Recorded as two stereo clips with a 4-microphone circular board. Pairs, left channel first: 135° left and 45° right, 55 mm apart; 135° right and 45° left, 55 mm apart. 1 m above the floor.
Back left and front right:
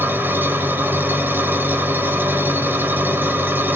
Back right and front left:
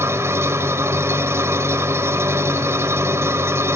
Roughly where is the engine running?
Ahead.